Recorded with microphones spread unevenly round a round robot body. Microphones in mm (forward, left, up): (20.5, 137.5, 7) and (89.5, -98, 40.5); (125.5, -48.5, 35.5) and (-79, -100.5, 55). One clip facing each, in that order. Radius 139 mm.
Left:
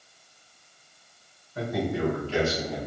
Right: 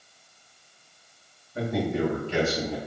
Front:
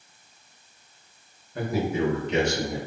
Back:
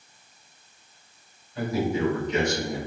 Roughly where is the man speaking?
Ahead.